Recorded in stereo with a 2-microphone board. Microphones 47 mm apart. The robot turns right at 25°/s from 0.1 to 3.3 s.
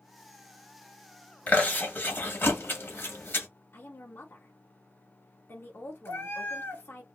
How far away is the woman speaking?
About 1.5 m.